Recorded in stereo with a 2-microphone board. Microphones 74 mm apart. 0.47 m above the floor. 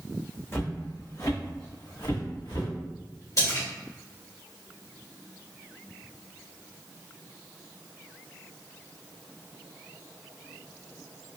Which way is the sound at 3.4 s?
55° left (ahead or behind).